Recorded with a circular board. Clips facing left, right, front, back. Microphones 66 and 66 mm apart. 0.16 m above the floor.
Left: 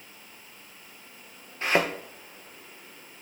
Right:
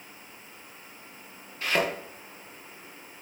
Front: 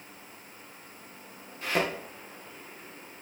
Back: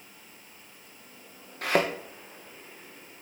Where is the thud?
150° left, 3 m.